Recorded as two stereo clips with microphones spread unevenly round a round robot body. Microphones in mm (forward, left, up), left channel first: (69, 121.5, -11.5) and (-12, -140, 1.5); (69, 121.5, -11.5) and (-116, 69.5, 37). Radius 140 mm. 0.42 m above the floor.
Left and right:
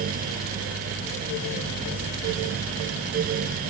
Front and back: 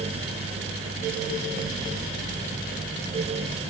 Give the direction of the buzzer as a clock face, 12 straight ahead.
I don't hear a buzzer.